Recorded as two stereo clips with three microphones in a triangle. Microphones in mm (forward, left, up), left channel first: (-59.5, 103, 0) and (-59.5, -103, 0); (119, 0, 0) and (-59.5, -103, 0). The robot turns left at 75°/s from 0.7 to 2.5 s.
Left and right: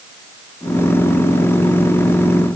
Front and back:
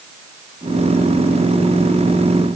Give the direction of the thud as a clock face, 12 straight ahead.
No thud in this recording.